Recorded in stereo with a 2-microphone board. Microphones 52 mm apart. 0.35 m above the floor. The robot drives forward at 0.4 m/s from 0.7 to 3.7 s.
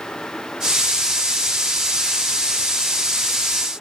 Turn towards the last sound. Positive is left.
No sound to turn to.